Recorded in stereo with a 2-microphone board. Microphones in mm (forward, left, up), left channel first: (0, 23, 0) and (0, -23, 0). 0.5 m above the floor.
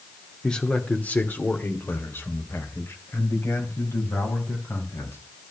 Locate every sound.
0.4 s a man speaking: 15° left (ahead or behind), 1.5 m; by 5.2 s 70° left (ahead or behind), 5 m